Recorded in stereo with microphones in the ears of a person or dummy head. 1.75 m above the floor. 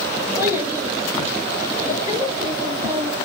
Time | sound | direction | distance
0.4 | a child speaking | 10° right (ahead or behind) | 1.6 m